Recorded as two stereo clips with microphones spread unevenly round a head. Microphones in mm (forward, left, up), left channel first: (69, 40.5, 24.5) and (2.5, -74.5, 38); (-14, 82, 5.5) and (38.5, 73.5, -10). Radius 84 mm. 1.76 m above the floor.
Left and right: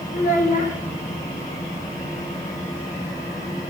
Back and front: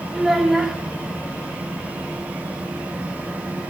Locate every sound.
0.1 s a child speaking: 90° left, 1.3 m